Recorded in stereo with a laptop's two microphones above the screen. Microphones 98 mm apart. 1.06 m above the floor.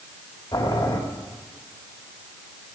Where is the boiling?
55° left (ahead or behind), 2 m.